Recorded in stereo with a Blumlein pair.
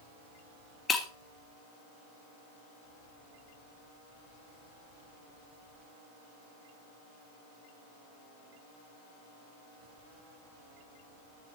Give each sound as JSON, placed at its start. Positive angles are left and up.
{"t": 0.9, "sound": "breaking glass", "azimuth_deg": 15, "distance_m": 2.0}